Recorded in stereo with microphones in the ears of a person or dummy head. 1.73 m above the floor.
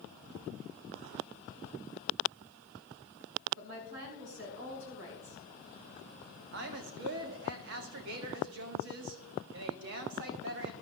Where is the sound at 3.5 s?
65° right (ahead or behind), 5 m.